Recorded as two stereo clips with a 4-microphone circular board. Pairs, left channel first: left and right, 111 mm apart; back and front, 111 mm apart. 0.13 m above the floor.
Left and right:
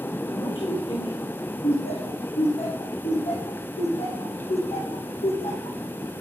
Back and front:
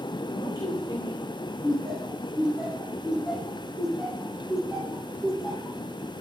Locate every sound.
0.3 s a man speaking: 125° left, 9.5 m
1.6 s laughter: 85° left, 6.5 m